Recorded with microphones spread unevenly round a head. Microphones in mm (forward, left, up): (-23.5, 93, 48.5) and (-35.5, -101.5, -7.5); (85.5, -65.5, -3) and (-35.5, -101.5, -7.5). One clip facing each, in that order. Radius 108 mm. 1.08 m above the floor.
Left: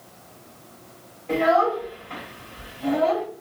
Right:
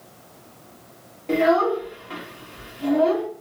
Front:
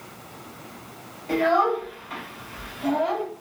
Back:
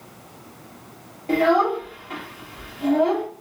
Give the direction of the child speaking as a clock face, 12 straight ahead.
4 o'clock.